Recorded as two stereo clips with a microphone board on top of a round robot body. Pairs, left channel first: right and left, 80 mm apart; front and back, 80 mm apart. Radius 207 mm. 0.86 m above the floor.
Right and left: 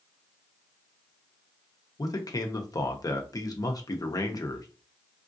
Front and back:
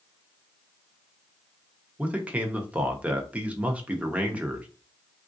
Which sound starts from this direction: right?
A man speaking, at 2.0 s.